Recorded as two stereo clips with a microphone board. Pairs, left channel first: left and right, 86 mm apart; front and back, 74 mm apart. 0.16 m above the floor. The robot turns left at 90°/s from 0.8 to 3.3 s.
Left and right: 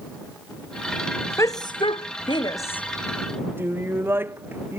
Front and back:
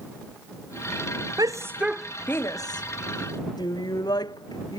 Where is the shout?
145° left; by 4.8 s 25° right.